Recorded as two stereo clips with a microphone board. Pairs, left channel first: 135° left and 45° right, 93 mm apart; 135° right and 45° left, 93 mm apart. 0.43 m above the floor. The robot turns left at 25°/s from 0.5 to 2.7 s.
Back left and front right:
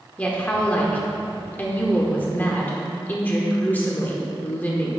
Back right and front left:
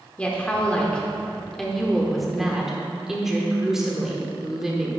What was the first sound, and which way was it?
A woman speaking, 175° left.